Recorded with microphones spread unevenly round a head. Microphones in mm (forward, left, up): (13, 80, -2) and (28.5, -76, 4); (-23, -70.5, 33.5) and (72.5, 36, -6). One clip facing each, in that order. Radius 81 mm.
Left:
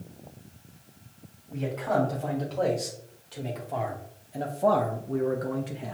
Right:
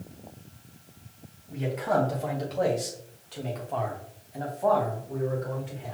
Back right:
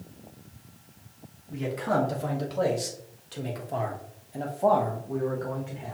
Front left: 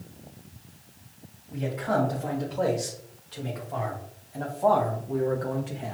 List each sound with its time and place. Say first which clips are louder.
1.5 s a man speaking: right 1 dB, even; 160° right, 2.0 m; by 5.9 s 100° left, 0.8 m